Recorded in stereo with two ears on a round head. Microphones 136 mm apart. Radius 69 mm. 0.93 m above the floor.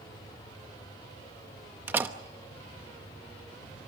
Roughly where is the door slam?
Centre.